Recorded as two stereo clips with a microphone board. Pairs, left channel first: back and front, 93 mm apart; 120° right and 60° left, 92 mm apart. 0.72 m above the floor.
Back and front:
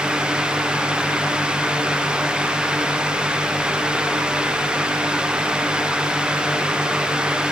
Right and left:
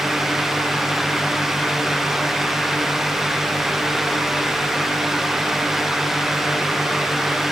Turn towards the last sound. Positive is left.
No sound to turn to.